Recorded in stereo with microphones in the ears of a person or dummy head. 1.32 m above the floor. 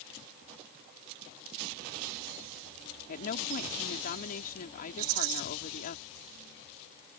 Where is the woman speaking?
50° left (ahead or behind).